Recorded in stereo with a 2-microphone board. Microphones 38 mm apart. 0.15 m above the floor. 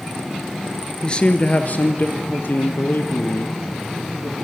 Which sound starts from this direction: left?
A man speaking, at 1.0 s.